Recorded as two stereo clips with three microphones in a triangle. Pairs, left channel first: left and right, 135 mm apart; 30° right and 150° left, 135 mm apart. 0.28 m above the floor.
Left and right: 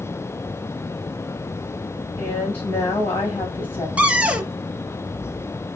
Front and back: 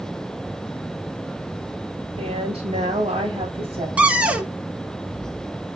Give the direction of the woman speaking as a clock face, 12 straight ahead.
7 o'clock.